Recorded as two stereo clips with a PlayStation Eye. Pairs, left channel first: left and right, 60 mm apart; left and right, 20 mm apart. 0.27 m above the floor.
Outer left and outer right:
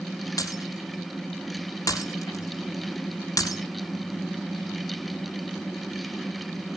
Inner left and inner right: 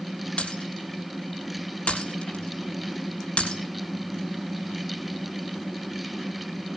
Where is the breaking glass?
80° left, 5 m.